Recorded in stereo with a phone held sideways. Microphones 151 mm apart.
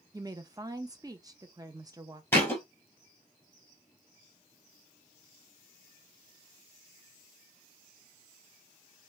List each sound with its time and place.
0.1 s a woman speaking: 25° right (ahead or behind), 0.5 m
2.3 s a thud: 15° left (ahead or behind), 1.5 m